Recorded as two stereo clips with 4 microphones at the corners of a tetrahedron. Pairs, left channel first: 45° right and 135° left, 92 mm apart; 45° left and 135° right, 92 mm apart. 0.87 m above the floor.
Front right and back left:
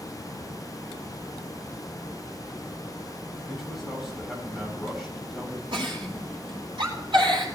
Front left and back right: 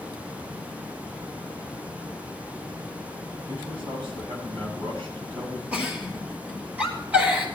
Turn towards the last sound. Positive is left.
turn(degrees=155)